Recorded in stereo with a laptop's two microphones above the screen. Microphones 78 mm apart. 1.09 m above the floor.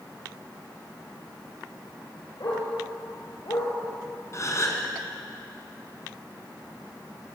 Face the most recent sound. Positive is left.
turn(degrees=40)  # may be behind; listen again after turning